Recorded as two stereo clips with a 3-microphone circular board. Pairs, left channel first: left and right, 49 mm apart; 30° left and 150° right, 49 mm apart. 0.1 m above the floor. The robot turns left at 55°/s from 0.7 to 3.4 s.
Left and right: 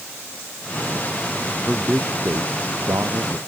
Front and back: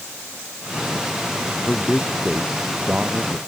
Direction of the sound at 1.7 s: 5° right.